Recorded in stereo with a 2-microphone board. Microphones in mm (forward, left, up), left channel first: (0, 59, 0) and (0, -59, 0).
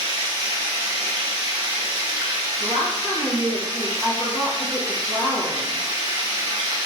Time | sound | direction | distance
0.0 | running water | 30° right (ahead or behind) | 1.2 m
2.6 | a woman speaking | 5° left (ahead or behind) | 1.6 m